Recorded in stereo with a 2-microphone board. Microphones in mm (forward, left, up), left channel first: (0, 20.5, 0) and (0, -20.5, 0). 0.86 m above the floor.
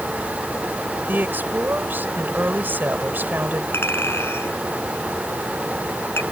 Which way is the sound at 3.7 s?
80° left.